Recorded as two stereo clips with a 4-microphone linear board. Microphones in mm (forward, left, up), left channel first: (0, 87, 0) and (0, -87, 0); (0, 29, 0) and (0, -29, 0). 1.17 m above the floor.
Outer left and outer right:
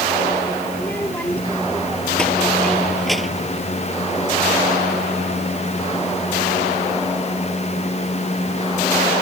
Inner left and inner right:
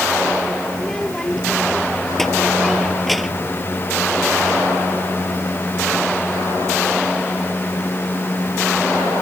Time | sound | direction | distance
0.7 | a child speaking | 10° left (ahead or behind) | ?